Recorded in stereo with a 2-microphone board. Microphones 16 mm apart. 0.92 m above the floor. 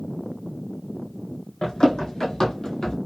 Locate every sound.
1.6 s running footsteps: 65° left (ahead or behind), 2.5 m; by 3.0 s 50° left (ahead or behind), 1.3 m